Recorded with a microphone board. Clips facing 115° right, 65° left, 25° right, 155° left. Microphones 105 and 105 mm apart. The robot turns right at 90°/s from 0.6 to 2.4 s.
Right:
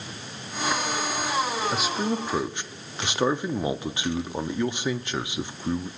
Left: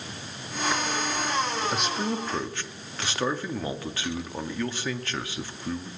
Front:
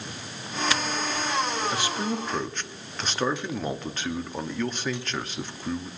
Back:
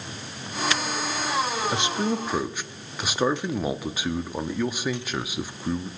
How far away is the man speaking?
About 0.6 m.